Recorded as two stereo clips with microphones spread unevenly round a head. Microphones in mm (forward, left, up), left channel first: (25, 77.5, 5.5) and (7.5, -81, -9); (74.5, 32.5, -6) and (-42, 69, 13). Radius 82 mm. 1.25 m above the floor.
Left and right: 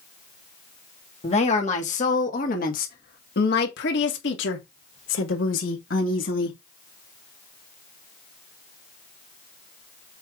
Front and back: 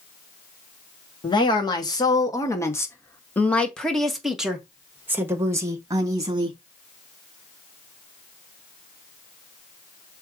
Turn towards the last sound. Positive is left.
turn(degrees=105)